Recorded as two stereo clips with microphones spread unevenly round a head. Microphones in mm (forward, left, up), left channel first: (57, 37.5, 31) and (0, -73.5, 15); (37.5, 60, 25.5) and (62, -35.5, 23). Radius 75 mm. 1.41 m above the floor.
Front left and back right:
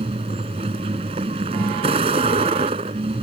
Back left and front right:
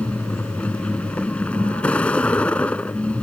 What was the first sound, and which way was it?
A vehicle, 175° right.